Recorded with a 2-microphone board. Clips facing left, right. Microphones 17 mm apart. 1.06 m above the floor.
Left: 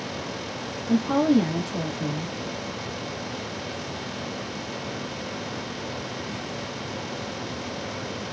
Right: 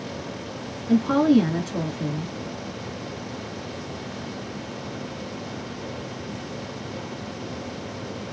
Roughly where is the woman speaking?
Right.